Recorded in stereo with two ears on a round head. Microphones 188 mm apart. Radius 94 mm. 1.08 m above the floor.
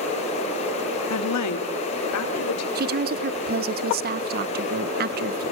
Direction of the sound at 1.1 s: 85° left.